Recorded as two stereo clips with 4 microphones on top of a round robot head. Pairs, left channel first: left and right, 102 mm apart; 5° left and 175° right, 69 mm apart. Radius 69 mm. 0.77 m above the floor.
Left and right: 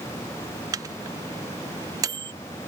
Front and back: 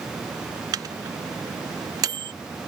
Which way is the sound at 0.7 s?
145° right.